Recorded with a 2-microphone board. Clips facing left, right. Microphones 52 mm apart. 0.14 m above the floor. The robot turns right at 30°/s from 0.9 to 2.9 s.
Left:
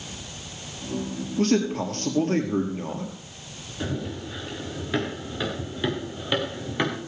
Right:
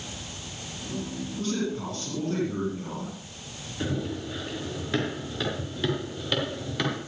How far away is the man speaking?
About 3.5 m.